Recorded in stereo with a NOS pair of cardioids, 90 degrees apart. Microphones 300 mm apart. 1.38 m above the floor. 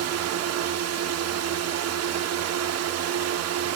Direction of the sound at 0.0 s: 60° right.